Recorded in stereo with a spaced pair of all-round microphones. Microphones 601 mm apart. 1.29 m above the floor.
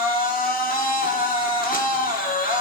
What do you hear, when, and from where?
0.0 s a machine running: 15° left (ahead or behind), 1.2 m